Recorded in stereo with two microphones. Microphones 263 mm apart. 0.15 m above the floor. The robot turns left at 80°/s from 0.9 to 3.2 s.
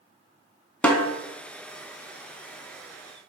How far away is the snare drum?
About 0.6 m.